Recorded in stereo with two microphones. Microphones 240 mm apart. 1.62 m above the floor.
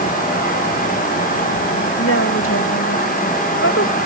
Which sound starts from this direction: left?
A woman speaking, at 2.0 s.